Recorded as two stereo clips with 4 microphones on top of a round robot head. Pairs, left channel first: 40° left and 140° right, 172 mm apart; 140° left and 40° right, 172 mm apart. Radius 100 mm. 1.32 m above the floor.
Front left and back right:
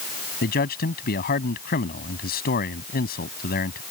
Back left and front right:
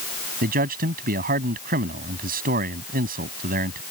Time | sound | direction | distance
0.4 | a man speaking | straight ahead | ?